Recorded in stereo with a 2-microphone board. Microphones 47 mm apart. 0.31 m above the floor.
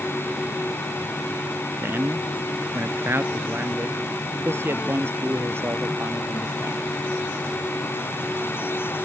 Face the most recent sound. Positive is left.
turn(degrees=-60)  # may be behind; listen again after turning